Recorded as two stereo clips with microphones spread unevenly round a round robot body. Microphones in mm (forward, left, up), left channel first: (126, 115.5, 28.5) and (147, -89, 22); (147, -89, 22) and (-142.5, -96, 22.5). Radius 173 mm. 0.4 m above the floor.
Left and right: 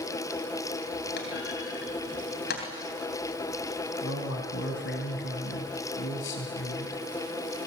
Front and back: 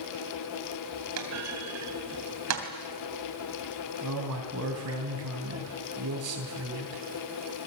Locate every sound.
1.2 s a clunk: 145° left, 3 m
4.0 s a man speaking: 140° left, 3.5 m